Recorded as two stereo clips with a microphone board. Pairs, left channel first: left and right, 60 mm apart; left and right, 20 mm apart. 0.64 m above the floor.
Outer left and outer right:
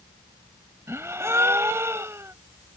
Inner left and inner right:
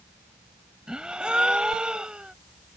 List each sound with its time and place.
0.9 s a gasp: 50° right (ahead or behind)